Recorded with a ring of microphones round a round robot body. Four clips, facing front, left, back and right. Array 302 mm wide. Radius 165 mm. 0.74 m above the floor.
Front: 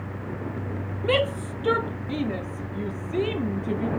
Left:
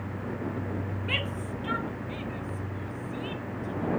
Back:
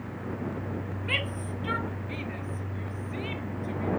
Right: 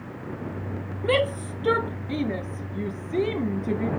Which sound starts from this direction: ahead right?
A shout, at 1.0 s.